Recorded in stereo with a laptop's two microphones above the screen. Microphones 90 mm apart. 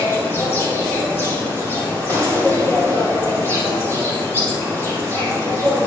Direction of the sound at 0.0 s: 25° left (ahead or behind).